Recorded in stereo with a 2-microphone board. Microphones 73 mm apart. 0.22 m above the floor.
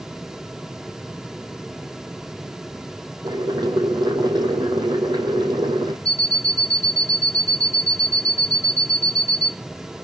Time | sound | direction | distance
3.2 | boiling | 75° right (ahead or behind) | 4 m
6.0 | an alarm clock | 15° left (ahead or behind) | 0.9 m